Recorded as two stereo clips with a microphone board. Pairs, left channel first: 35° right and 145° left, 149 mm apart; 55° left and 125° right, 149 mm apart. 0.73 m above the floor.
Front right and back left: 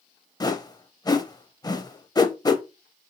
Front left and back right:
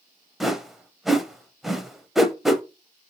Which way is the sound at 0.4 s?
40° right.